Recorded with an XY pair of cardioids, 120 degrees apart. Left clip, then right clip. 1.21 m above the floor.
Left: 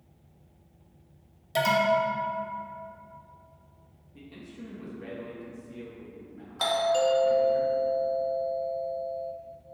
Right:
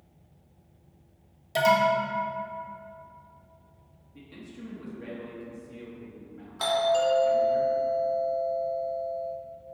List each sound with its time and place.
1.6 s an alarm: straight ahead, 0.8 m
4.1 s a man speaking: 10° right, 1.3 m
6.6 s a doorbell: 10° left, 1.1 m